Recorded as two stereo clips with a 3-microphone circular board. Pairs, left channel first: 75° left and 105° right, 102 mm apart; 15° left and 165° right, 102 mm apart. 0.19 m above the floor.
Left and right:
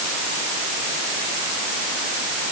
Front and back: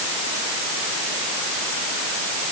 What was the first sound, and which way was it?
Only background noise.